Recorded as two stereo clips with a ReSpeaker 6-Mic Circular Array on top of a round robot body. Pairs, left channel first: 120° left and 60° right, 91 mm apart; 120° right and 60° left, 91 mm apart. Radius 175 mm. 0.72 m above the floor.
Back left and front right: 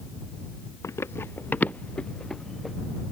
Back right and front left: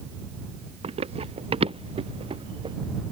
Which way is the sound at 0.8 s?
60° left.